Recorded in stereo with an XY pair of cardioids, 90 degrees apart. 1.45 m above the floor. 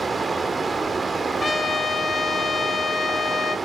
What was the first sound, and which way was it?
Running water, 30° right.